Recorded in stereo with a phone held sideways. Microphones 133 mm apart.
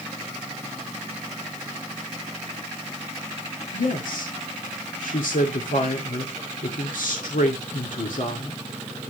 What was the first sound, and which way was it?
A woman speaking, 85° left.